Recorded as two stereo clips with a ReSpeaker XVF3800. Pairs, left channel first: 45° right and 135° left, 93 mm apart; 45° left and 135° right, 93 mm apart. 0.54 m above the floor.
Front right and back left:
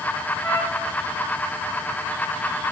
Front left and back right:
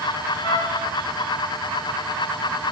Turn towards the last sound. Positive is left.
turn(degrees=25)